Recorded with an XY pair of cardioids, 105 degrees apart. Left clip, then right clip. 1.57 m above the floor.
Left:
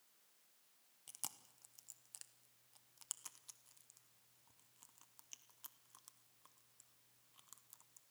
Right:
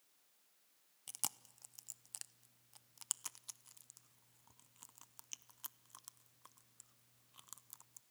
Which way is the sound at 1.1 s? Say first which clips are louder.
Right 6 dB; 45° right.